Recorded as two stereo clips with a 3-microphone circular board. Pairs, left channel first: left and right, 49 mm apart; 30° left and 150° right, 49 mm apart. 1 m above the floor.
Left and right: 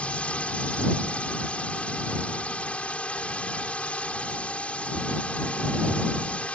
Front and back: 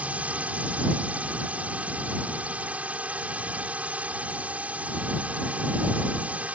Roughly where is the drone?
Behind left.